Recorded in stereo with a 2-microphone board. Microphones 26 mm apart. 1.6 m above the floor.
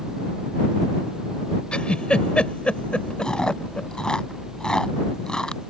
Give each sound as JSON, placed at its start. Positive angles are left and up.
{"t": 1.7, "sound": "a giggle", "side_deg": 50}
{"t": 3.2, "sound": "chewing", "side_deg": 35}